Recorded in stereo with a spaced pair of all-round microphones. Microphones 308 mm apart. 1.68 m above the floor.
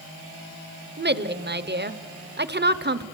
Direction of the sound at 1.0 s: 35° right (ahead or behind).